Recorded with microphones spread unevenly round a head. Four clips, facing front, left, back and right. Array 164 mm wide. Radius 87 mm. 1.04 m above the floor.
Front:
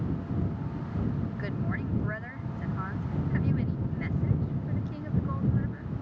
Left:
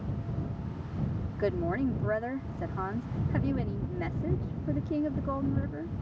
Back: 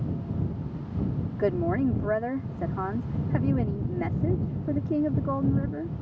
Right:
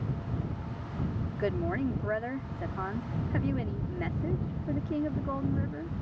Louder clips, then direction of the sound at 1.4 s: Left 2 dB, back 9 dB; 175° left.